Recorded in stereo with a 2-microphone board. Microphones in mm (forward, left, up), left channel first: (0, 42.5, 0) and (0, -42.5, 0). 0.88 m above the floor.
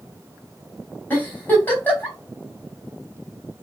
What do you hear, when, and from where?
1.1 s a giggle: 25° left (ahead or behind), 4 m